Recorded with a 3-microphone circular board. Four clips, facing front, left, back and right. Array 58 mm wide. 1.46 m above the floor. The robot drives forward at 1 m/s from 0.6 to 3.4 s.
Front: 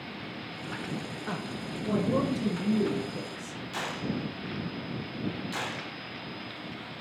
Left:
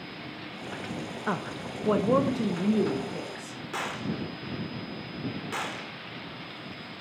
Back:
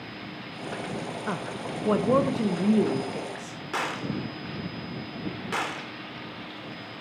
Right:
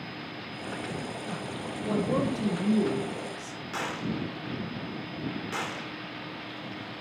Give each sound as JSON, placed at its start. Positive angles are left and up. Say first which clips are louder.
{"t": 1.3, "sound": "a woman speaking", "louder": "left 3 dB, back 3 dB", "azimuth_deg": 110, "distance_m": 0.8}
{"t": 3.7, "sound": "a gunshot", "louder": "even, back 4 dB", "azimuth_deg": 175, "distance_m": 3.0}